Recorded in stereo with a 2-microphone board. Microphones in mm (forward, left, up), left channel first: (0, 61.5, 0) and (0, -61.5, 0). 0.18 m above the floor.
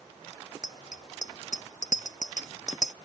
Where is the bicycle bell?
85° left.